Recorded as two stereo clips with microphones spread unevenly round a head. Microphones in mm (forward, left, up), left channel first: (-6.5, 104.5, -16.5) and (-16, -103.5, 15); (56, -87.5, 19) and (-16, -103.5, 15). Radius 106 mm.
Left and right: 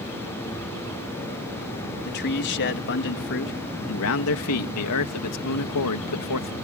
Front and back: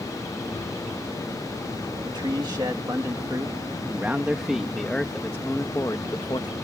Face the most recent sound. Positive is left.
turn(degrees=80)